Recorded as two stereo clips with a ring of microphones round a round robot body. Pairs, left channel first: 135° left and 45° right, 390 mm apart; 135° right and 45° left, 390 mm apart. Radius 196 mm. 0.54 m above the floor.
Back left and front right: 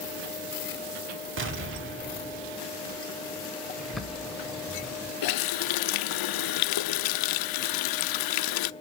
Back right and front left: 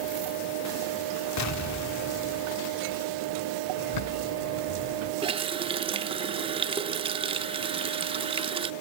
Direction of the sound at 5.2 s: 120° left.